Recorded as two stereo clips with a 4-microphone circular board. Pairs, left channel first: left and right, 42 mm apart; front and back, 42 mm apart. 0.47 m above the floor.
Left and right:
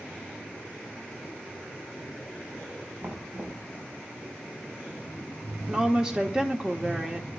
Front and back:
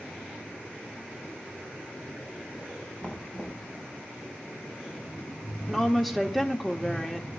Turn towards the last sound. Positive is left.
turn(degrees=-100)